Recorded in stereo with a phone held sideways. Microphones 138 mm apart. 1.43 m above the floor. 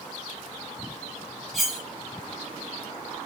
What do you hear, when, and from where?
1.5 s cutlery clinking: centre (ahead or behind), 1.2 m